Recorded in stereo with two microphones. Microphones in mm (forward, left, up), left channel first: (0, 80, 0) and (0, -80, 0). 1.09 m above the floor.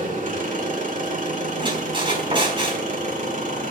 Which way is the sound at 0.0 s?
60° right (ahead or behind).